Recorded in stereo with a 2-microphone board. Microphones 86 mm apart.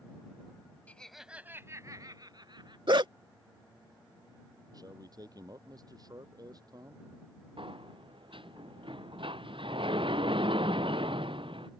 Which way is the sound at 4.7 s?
45° right (ahead or behind).